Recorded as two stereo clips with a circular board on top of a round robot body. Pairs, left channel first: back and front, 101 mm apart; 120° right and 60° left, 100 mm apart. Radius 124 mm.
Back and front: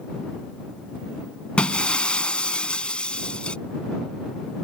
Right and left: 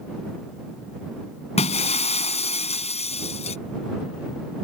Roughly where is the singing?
I don't hear singing.